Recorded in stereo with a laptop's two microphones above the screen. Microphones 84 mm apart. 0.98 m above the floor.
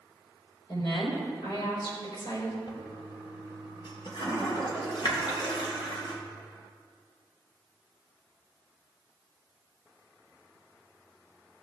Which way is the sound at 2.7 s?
65° left (ahead or behind).